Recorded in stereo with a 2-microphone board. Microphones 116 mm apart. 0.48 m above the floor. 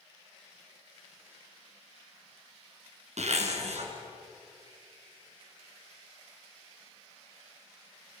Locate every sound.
3.2 s a zipper: 75° right (ahead or behind), 3 m